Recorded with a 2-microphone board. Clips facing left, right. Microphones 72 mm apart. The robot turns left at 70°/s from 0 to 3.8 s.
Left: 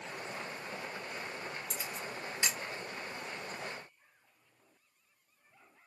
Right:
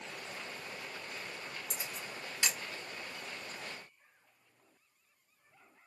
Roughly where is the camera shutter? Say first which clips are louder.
Left 3 dB; centre.